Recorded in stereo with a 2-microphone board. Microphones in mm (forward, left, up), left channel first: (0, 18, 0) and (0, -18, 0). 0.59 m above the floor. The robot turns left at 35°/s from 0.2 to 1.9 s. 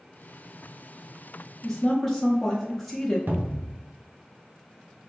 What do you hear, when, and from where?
1.6 s a woman speaking: 10° left (ahead or behind), 0.7 m; by 3.2 s 5° left (ahead or behind), 0.7 m
3.3 s a cupboard door: 70° right (ahead or behind), 0.6 m